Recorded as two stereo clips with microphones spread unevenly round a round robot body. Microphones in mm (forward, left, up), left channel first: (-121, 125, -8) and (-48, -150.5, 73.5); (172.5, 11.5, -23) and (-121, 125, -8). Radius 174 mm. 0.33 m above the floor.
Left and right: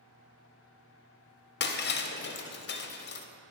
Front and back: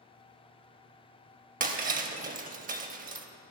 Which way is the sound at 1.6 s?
100° left.